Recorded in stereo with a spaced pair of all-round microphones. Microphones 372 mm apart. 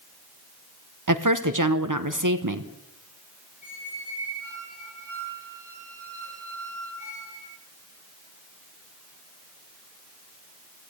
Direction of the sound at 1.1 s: 55° right (ahead or behind).